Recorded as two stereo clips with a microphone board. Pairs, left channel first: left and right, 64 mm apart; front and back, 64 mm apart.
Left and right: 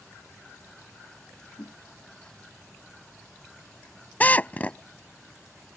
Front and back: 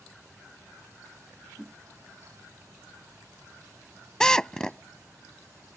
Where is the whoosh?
100° left.